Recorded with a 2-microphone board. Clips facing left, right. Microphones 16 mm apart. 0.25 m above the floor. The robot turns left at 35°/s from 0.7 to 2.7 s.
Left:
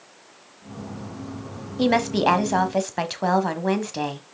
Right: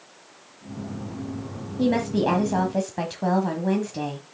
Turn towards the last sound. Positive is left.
turn(degrees=45)